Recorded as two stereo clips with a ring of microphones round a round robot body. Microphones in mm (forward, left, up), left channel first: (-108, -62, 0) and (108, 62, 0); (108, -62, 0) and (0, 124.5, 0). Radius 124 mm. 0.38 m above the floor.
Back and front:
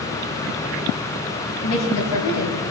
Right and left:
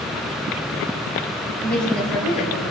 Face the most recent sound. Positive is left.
turn(degrees=-145)